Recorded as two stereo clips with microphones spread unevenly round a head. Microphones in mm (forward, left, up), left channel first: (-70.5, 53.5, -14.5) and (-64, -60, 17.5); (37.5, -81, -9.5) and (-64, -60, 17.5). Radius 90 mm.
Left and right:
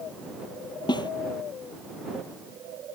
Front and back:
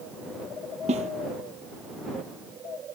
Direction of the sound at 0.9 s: 145° left.